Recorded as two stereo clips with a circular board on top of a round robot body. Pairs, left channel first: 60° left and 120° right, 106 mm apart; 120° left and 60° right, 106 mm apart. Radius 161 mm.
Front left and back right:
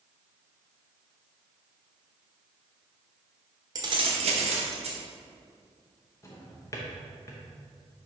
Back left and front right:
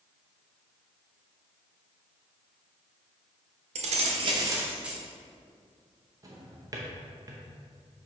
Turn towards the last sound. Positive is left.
turn(degrees=0)